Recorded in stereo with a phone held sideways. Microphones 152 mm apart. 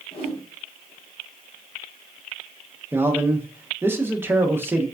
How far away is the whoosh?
About 1.0 m.